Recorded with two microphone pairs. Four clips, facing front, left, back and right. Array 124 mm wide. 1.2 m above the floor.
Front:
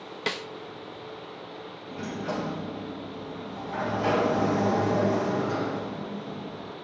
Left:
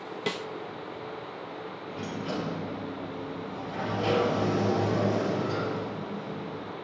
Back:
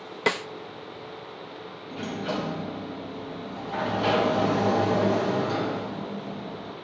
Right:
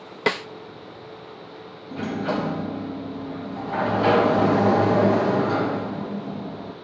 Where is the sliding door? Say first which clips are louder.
Right 9 dB, back 2 dB; 90° right, 1.6 m.